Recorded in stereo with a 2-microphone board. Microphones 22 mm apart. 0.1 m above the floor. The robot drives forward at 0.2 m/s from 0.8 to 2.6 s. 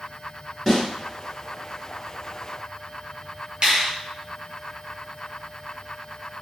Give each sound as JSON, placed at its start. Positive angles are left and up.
{"t": 0.7, "sound": "a snare drum", "side_deg": 0, "distance_m": 1.5}
{"t": 3.6, "sound": "a finger snap", "side_deg": -40, "distance_m": 1.7}